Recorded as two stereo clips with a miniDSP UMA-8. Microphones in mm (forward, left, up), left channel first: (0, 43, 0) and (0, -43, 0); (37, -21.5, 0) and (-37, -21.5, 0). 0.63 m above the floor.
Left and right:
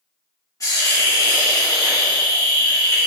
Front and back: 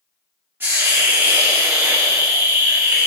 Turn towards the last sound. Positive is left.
turn(degrees=125)